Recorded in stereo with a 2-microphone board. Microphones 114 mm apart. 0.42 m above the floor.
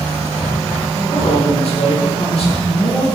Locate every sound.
0.9 s a man speaking: 60° left (ahead or behind), 5.5 m